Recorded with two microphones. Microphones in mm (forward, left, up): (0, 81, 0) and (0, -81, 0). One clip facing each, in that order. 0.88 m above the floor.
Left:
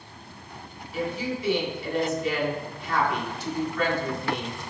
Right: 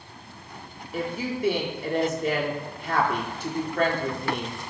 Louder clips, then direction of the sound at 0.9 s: Even; 50° right (ahead or behind).